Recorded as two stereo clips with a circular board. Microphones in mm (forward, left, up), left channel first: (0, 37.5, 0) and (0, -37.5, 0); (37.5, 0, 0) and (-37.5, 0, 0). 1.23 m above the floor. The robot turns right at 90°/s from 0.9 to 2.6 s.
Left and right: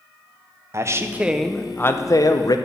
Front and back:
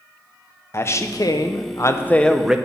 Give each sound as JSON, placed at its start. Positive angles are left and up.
{"t": 0.7, "sound": "a man speaking", "azimuth_deg": -45, "distance_m": 0.7}